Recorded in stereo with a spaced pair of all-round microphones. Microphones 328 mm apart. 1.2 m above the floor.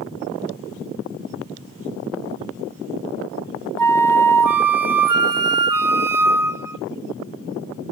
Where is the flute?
75° right (ahead or behind), 0.7 m.